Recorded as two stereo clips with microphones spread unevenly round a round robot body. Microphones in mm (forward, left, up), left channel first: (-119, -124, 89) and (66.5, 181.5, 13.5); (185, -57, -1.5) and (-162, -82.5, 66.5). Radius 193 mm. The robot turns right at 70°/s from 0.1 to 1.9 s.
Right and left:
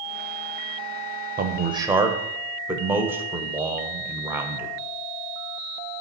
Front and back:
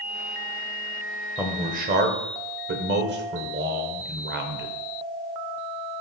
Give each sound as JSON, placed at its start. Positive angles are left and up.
{"t": 1.4, "sound": "a man speaking", "azimuth_deg": 90, "distance_m": 1.1}